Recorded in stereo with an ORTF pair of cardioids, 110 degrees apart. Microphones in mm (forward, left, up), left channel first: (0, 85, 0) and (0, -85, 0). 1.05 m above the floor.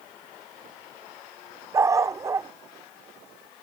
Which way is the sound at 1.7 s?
20° right.